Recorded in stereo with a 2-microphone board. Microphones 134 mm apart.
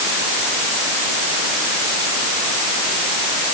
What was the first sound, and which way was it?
Only background noise.